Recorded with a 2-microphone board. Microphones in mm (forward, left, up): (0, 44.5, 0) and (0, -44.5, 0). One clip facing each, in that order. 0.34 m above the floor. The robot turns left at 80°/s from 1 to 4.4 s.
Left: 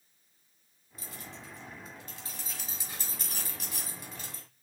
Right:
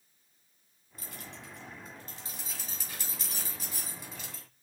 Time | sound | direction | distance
1.0 | keys jangling | 50° right (ahead or behind) | 2 m